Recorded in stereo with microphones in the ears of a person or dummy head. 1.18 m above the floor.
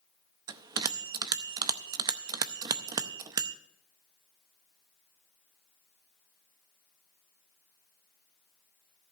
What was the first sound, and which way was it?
A bell, 25° right (ahead or behind).